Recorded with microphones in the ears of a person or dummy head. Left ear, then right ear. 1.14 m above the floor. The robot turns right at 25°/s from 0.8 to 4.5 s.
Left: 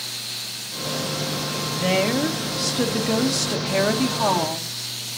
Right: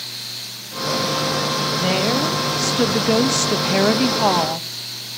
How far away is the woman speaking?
About 1.2 m.